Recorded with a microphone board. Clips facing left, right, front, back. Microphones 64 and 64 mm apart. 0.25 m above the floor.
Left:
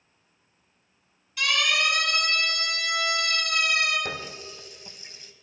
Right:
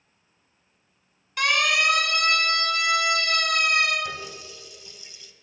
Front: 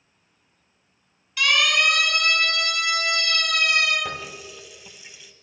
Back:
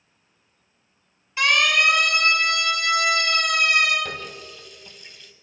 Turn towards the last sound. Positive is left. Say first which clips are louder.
# even, front 1 dB
turn(degrees=80)